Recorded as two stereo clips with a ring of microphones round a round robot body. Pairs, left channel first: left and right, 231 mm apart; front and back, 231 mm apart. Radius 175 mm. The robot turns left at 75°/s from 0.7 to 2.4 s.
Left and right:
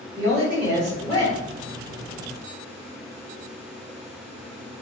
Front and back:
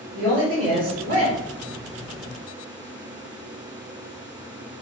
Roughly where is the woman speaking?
Behind.